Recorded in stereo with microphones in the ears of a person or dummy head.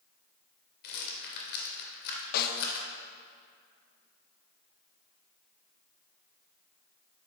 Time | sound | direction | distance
0.8 | a rattle | 55° left (ahead or behind) | 2 m
2.3 | a snare drum | 55° left (ahead or behind) | 0.9 m